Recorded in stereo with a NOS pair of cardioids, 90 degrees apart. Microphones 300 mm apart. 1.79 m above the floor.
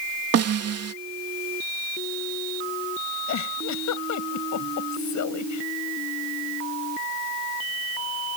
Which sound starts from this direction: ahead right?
A snare drum, at 0.3 s.